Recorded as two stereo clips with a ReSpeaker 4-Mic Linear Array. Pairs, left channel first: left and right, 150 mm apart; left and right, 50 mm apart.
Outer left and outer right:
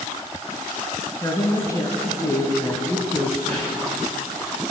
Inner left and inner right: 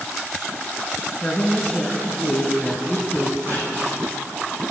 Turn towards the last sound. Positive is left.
turn(degrees=-45)  # may be behind; listen again after turning